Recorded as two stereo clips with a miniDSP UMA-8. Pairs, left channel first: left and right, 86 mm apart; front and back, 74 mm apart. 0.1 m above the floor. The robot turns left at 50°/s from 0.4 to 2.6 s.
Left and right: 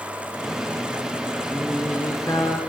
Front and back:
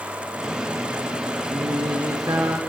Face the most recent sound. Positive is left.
turn(degrees=125)